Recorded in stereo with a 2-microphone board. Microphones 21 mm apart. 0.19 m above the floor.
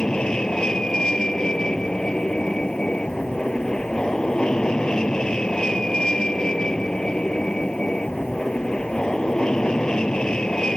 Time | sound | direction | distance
0.0 | an aircraft | 45° left (ahead or behind) | ?